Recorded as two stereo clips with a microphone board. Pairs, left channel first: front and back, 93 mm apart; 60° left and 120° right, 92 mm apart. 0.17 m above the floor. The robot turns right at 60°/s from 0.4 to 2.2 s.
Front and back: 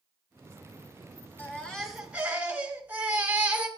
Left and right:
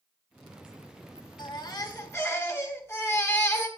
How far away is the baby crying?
About 1.8 m.